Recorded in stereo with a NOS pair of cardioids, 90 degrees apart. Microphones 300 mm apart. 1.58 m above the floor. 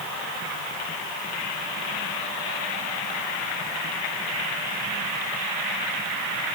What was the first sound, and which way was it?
Only background noise.